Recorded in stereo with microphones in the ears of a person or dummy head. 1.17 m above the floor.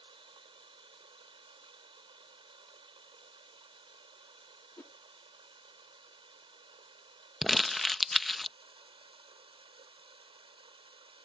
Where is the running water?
35° right (ahead or behind).